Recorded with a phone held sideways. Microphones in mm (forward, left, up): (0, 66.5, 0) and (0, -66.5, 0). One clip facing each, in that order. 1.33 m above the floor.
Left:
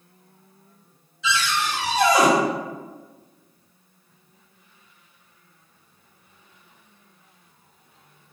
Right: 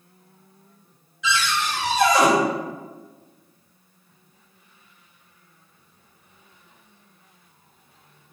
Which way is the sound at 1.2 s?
30° left (ahead or behind).